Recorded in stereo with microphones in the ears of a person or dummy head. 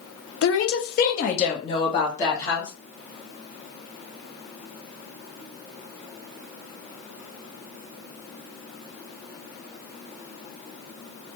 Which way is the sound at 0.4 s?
75° left (ahead or behind).